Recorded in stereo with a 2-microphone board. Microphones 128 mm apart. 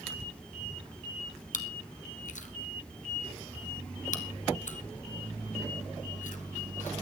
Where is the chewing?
80° left, 1.2 m.